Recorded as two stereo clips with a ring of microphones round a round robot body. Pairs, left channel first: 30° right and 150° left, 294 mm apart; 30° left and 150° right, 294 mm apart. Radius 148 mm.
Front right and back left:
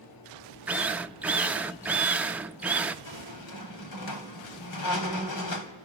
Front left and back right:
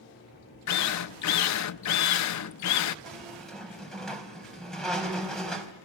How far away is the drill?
About 0.6 m.